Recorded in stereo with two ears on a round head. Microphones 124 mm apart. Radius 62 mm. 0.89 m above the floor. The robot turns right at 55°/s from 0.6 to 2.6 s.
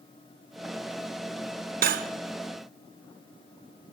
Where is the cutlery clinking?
70° right (ahead or behind), 0.7 m; by 2.1 s 60° right (ahead or behind), 0.7 m.